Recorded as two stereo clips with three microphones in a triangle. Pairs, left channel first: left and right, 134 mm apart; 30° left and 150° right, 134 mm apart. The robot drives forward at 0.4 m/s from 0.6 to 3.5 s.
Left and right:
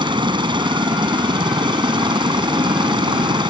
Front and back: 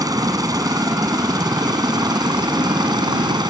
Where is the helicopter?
110° right; by 3.5 s 115° right.